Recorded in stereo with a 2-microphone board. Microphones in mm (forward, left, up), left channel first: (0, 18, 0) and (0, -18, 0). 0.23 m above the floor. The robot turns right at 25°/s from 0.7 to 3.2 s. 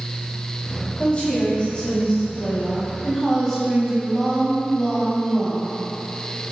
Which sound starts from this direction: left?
A woman speaking, at 1.0 s.